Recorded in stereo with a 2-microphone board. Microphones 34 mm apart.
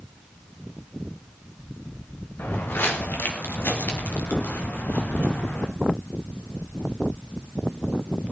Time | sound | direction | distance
2.4 | footsteps | 80° left | 3.5 m